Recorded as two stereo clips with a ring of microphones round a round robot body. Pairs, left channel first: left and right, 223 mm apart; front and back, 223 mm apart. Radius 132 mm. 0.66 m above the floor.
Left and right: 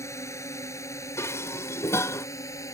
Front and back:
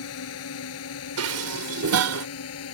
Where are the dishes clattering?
170° left.